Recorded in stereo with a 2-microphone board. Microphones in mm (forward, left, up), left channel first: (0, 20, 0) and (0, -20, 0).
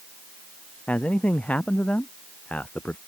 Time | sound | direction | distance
0.9 | a man speaking | 35° left (ahead or behind) | ?